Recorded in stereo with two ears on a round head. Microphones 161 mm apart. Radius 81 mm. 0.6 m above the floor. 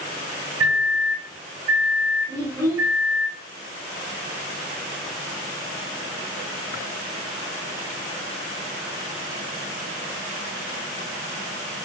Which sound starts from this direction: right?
A microwave, at 0.6 s.